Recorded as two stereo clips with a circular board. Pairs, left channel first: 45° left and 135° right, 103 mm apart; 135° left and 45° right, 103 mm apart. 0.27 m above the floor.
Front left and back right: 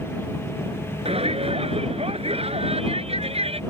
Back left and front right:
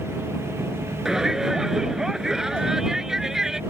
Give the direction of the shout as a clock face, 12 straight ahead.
4 o'clock.